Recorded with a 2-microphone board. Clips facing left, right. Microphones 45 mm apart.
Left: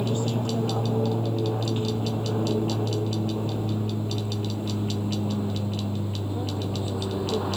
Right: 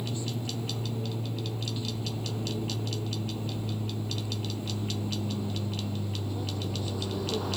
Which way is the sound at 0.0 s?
50° left (ahead or behind).